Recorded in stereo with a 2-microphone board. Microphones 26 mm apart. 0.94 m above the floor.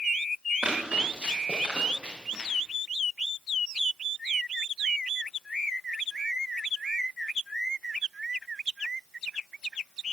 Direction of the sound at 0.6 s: 45° right (ahead or behind).